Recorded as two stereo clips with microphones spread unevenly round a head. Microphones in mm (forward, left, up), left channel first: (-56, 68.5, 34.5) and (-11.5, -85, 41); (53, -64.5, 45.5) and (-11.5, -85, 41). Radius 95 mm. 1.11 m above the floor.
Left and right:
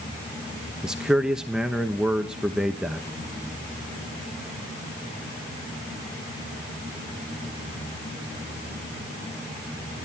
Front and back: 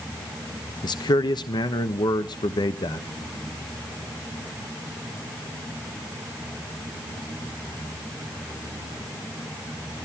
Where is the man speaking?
15° left, 1.0 m.